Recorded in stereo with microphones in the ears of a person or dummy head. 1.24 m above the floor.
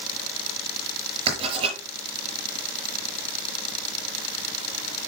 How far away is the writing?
About 5 m.